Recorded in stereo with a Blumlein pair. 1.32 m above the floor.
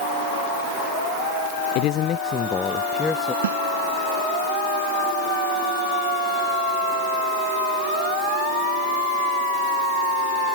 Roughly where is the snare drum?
Ahead right.